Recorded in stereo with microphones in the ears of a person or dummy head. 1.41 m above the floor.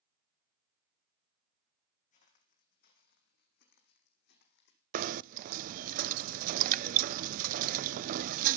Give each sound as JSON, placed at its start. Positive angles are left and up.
{"t": 2.1, "sound": "footsteps", "side_deg": 45, "distance_m": 4.0}
{"t": 4.9, "sound": "knocking", "side_deg": -50, "distance_m": 0.5}